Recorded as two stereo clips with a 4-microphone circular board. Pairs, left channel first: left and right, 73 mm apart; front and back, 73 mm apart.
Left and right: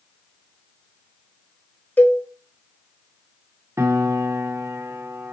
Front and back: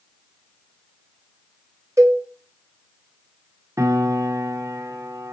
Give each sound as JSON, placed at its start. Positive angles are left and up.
{"t": 2.0, "sound": "a cowbell", "azimuth_deg": 150, "distance_m": 1.3}
{"t": 3.8, "sound": "a piano", "azimuth_deg": -140, "distance_m": 1.2}